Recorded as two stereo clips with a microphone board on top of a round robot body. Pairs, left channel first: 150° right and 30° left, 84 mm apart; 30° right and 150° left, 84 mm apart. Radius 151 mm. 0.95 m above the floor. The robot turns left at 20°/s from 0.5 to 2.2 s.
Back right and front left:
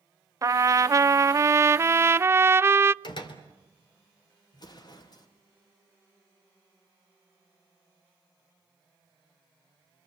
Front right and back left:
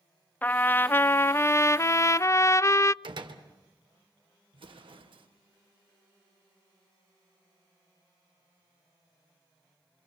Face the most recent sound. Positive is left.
turn(degrees=170)